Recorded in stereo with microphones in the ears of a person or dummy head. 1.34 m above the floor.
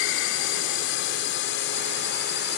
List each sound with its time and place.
0.0 s a drone: 70° left (ahead or behind); by 2.6 s 65° left (ahead or behind)